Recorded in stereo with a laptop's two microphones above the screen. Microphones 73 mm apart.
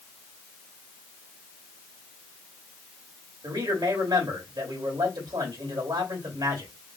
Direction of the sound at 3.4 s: 75° right (ahead or behind).